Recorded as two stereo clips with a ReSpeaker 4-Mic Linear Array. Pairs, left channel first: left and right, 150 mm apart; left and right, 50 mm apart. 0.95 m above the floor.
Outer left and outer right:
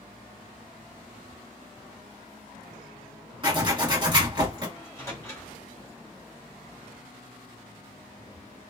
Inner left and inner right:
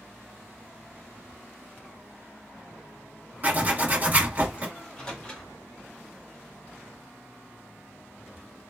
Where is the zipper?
30° right (ahead or behind), 1.7 m.